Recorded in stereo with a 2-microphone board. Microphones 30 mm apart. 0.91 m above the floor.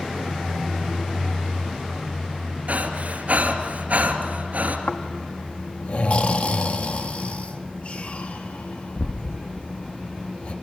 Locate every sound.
2.7 s breathing: 60° right (ahead or behind), 2.5 m
4.9 s snoring: 55° left (ahead or behind), 1.2 m